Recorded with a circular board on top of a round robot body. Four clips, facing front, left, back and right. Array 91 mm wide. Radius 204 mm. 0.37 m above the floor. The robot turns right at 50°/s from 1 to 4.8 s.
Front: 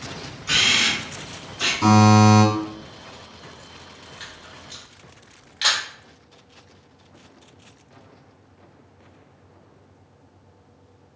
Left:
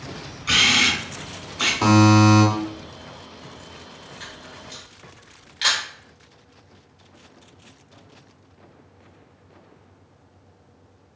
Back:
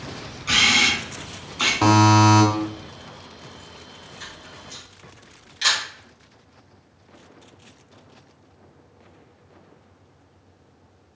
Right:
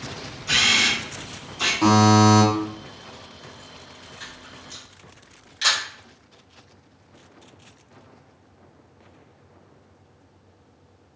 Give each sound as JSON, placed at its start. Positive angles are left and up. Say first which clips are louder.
{"t": 0.5, "sound": "a camera shutter", "louder": "left 2 dB, back 3 dB", "azimuth_deg": 115, "distance_m": 1.3}
{"t": 1.8, "sound": "a buzzer", "louder": "left 1 dB, front 1 dB", "azimuth_deg": 160, "distance_m": 0.9}
{"t": 4.2, "sound": "a camera shutter", "louder": "left 1 dB, back 1 dB", "azimuth_deg": 10, "distance_m": 1.6}